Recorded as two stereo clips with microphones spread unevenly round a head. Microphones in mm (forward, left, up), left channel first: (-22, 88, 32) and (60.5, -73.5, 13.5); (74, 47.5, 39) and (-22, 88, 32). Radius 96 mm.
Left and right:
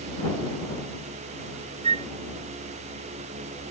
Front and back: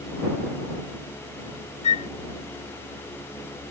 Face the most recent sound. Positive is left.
turn(degrees=-5)